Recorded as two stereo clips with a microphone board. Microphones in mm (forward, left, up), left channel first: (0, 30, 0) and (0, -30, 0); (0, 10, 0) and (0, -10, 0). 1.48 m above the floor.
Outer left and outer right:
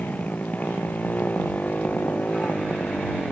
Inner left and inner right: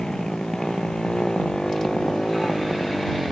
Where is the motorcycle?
25° left (ahead or behind).